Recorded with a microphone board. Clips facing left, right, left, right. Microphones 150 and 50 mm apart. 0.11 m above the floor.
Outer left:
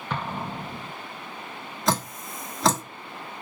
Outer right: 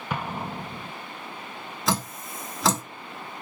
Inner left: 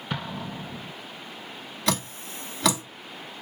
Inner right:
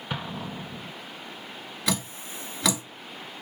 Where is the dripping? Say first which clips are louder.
Outer left 2 dB, inner left 2 dB; centre (ahead or behind), 1.3 m.